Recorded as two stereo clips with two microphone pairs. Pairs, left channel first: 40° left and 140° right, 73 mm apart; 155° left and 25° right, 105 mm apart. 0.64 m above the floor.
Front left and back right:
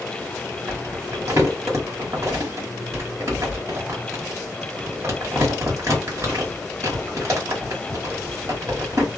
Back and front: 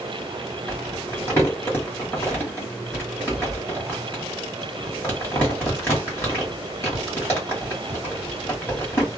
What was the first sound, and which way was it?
Crumpling, 150° right.